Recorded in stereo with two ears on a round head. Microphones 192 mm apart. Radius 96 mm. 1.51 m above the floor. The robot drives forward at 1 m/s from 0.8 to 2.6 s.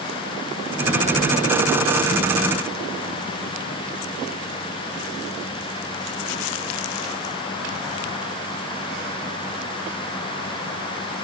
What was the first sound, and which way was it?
Only background noise.